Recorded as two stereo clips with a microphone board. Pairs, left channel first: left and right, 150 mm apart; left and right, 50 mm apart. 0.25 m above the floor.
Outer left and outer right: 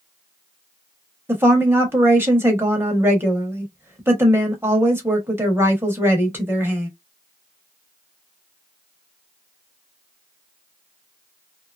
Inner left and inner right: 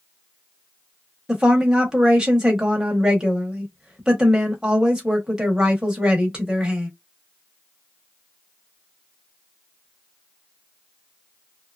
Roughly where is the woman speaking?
Centre.